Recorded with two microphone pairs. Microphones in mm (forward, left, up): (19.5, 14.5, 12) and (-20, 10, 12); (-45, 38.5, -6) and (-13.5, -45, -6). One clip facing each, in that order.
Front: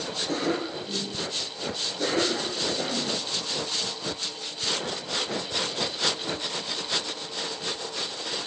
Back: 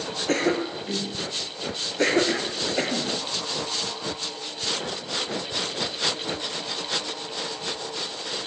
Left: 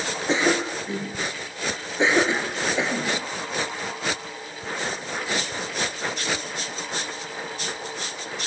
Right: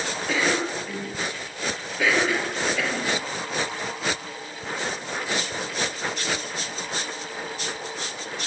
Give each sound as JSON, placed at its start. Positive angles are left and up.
{"t": 0.3, "sound": "a cough", "azimuth_deg": 175, "distance_m": 5.5}